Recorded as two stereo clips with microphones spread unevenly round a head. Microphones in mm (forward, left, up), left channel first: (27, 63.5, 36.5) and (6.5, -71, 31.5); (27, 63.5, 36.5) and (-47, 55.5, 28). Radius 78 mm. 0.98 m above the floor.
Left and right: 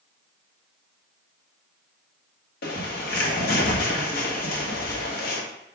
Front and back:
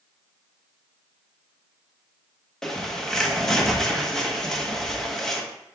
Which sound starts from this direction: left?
A bird, at 2.6 s.